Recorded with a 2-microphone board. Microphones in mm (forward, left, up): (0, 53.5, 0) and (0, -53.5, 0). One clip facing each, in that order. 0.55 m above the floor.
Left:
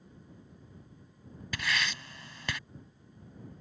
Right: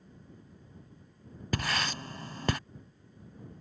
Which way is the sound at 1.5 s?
40° right (ahead or behind).